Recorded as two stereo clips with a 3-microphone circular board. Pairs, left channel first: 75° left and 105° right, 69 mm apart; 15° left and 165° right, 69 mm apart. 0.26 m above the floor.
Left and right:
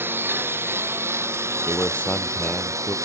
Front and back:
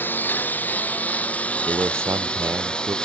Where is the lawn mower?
45° right; by 3.1 s 60° right.